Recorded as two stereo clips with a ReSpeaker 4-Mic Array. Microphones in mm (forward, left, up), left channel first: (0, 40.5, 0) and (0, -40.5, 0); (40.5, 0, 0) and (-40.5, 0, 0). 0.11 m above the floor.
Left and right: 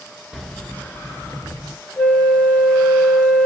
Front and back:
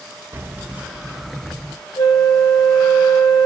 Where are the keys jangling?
175° right, 0.9 m; by 1.8 s 80° left, 1.3 m.